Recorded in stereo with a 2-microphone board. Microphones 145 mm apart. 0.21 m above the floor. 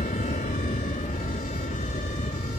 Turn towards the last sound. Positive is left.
turn(degrees=60)  # may be behind; listen again after turning